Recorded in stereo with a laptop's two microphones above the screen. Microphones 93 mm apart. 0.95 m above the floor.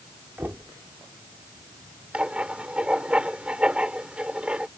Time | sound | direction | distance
0.4 | knocking | 25° right (ahead or behind) | ?
2.1 | writing | 10° right (ahead or behind) | ?